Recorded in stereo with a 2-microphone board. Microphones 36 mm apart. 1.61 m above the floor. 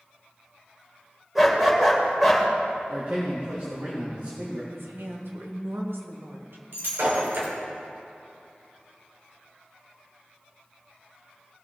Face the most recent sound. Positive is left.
turn(degrees=-75)  # may be behind; listen again after turning